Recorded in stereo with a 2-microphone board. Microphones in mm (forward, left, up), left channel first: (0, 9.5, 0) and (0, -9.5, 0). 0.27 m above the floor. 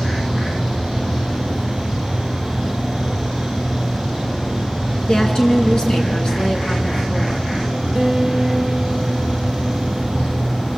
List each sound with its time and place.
5.1 s a woman speaking: 45° left (ahead or behind), 4 m
8.0 s a guitar: 15° right (ahead or behind), 3 m